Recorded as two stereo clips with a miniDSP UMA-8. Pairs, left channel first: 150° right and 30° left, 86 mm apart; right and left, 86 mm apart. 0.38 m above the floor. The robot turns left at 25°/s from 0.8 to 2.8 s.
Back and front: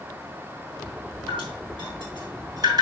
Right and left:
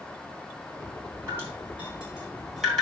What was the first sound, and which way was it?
Dripping, 30° left.